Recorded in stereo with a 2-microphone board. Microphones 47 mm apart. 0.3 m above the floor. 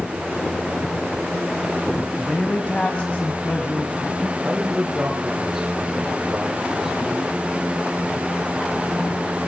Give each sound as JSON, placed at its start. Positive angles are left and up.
{"t": 2.2, "sound": "a man speaking", "side_deg": 30, "distance_m": 1.9}
{"t": 4.4, "sound": "a man speaking", "side_deg": -10, "distance_m": 5.5}